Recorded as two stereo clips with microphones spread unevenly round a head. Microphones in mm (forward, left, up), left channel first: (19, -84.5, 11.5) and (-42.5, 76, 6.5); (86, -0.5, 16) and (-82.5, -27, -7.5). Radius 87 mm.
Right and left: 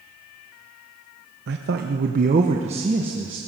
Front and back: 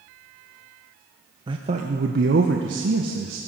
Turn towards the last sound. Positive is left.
turn(degrees=175)